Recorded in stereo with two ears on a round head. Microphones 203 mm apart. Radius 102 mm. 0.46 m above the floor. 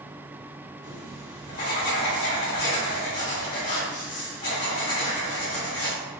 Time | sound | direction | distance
0.8 | writing | 40° left (ahead or behind) | 1.6 m